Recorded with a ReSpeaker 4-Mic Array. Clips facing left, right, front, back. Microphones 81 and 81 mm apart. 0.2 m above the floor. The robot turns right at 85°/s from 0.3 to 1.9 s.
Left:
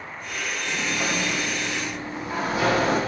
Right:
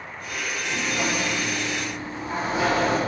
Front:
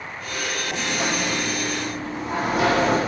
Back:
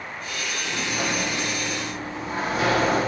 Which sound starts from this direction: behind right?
A sliding door, at 0.7 s.